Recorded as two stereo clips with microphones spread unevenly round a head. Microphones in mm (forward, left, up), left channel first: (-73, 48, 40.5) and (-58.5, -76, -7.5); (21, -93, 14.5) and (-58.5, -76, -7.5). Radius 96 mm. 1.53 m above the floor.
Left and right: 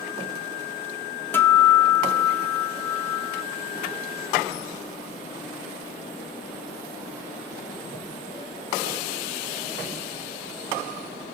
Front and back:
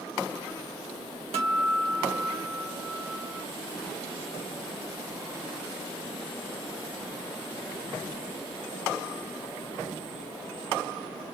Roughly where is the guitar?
Behind left.